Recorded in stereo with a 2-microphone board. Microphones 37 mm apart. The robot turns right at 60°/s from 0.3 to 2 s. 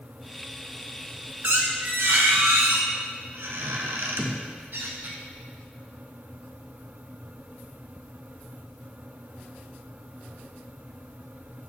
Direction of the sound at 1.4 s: 115° right.